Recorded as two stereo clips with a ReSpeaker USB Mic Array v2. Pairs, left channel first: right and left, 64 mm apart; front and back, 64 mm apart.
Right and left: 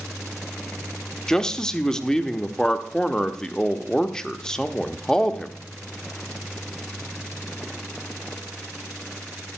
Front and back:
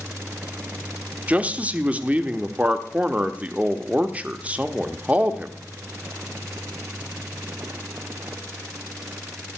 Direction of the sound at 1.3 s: 155° right.